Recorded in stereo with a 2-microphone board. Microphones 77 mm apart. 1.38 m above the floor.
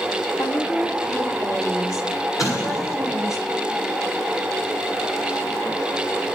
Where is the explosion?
45° left (ahead or behind), 7 m.